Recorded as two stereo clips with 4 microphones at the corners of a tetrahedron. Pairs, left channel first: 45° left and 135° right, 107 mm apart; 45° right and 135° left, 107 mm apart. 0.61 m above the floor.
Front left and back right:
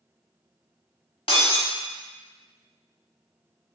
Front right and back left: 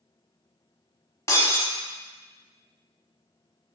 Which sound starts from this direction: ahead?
Breaking glass, at 1.3 s.